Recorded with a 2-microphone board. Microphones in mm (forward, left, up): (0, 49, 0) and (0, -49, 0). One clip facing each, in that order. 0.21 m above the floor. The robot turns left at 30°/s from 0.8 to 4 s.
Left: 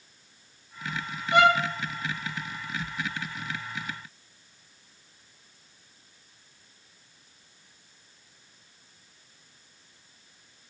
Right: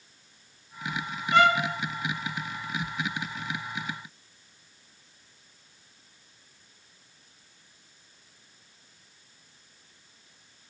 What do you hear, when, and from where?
1.3 s a violin: 20° left (ahead or behind), 6.5 m; by 1.6 s 10° left (ahead or behind), 6.5 m